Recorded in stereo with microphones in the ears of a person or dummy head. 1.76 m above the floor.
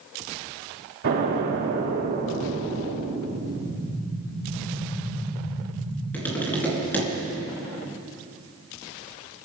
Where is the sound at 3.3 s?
75° left (ahead or behind), 7 m.